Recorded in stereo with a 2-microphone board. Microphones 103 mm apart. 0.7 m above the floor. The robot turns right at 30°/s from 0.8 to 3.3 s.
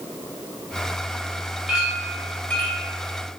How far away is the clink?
About 2.5 m.